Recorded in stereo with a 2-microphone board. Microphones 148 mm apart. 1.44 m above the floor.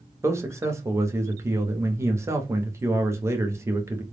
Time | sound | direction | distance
0.2 | a man speaking | 20° right (ahead or behind) | 0.6 m